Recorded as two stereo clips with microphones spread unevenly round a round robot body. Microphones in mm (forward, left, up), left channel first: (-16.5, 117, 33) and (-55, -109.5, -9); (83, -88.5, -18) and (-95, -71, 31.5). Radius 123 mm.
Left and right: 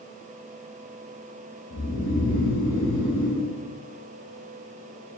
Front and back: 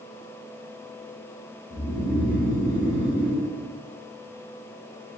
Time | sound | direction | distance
1.7 | snoring | 20° left | 0.8 m